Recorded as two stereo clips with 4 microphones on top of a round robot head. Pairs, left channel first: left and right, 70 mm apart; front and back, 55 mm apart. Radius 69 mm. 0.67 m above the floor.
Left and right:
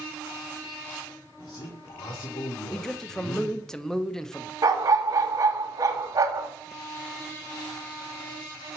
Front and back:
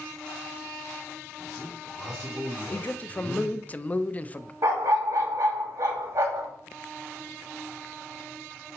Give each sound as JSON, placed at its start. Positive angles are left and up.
{"t": 1.4, "sound": "a man speaking", "azimuth_deg": 105, "distance_m": 1.7}
{"t": 2.7, "sound": "a man speaking", "azimuth_deg": 15, "distance_m": 0.5}
{"t": 4.6, "sound": "a dog barking", "azimuth_deg": -135, "distance_m": 0.9}